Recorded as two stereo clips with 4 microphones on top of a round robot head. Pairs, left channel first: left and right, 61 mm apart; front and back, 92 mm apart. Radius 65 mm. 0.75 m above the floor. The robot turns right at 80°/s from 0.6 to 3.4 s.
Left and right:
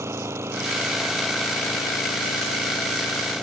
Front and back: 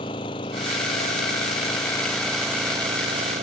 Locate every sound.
0.0 s an engine running: 45° right; by 3.4 s 175° left